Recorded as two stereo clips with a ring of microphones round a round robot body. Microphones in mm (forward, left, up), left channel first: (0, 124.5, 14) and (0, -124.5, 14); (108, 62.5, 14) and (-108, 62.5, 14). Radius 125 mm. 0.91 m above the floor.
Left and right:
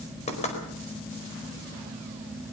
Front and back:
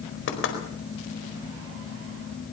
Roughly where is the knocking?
Ahead left.